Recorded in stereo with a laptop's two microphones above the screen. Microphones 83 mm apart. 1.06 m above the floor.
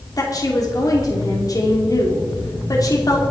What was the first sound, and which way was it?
A woman speaking, 45° left (ahead or behind).